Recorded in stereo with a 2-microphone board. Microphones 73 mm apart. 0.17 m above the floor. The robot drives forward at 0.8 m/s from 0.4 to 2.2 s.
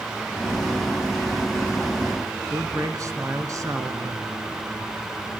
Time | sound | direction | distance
2.5 | a man speaking | 50° right (ahead or behind) | 1.8 m